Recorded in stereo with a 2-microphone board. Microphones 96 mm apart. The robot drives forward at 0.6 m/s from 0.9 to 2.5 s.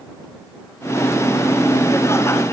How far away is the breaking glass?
I don't hear breaking glass.